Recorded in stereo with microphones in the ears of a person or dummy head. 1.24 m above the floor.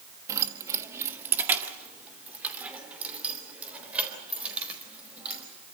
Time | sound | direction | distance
0.3 | keys jangling | 15° right (ahead or behind) | 1.1 m